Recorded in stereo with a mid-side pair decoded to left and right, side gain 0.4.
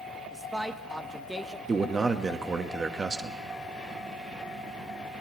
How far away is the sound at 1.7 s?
About 1.0 m.